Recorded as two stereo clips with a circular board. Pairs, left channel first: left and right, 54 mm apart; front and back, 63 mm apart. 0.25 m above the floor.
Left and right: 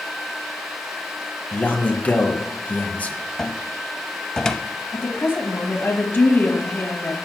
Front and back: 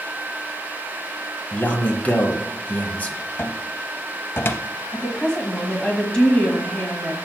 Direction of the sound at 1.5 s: 45° left.